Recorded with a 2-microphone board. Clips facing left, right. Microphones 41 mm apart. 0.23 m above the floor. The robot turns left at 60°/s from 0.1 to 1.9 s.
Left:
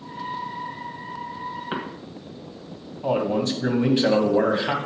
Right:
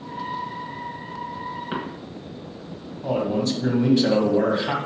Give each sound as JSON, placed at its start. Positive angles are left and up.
{"t": 1.7, "sound": "a cough", "side_deg": 15, "distance_m": 1.4}
{"t": 3.0, "sound": "a man speaking", "side_deg": 35, "distance_m": 1.2}